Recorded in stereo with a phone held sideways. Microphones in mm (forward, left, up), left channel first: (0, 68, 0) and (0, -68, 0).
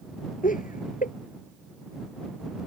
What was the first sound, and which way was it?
Laughter, 85° left.